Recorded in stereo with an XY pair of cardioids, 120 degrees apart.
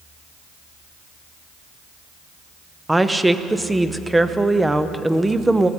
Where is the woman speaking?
10° right, 0.7 m.